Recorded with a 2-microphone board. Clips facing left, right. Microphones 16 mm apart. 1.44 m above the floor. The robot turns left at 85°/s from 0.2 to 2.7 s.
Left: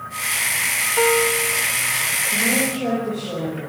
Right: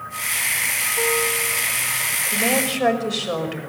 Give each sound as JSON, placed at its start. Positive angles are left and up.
{"t": 1.0, "sound": "a piano", "azimuth_deg": 85, "distance_m": 0.9}
{"t": 2.3, "sound": "a woman speaking", "azimuth_deg": -60, "distance_m": 6.0}